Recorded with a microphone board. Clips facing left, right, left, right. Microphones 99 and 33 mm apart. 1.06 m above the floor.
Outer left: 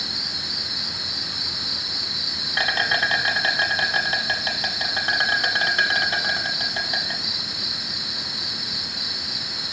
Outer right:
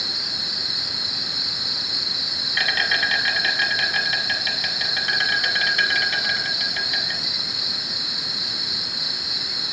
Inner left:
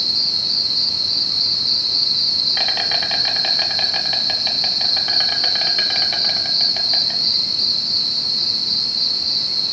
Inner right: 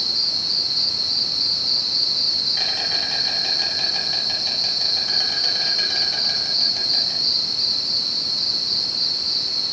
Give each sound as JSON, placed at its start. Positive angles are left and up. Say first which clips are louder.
{"t": 0.0, "sound": "an insect", "louder": "even, inner left 3 dB", "side_deg": 35, "distance_m": 1.1}